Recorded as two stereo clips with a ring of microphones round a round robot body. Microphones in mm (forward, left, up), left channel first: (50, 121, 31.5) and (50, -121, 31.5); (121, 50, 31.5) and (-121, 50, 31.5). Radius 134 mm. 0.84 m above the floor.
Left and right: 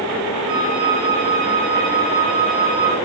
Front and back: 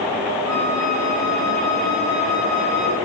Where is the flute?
85° right, 2 m.